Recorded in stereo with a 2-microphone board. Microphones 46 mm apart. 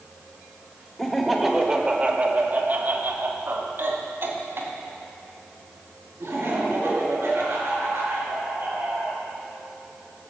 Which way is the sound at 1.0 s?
10° left (ahead or behind).